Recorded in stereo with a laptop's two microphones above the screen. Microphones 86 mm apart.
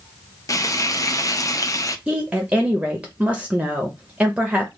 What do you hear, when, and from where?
0.5 s frying: 40° left (ahead or behind), 0.6 m
2.1 s a woman speaking: 15° right (ahead or behind), 0.7 m